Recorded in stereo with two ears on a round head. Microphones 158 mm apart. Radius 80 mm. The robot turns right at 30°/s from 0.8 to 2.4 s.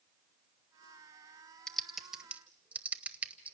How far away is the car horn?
No car horn in this recording.